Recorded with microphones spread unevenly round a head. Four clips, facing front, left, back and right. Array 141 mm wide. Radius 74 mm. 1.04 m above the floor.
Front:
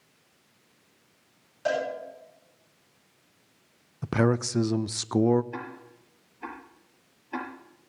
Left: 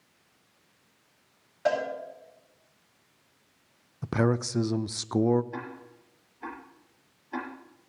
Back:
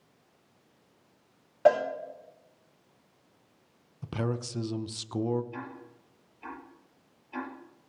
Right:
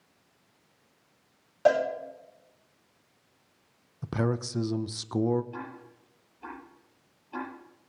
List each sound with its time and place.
1.6 s a cowbell: 150° right, 4.5 m
4.0 s a man speaking: 15° left, 0.5 m
5.5 s ticking: 30° left, 6 m